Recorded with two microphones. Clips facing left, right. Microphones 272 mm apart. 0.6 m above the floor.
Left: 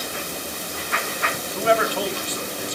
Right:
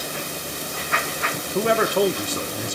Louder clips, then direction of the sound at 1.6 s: Right 3 dB; 50° right (ahead or behind).